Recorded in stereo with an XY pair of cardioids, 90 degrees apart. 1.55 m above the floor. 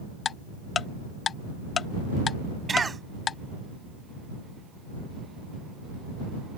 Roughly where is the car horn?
No car horn in this recording.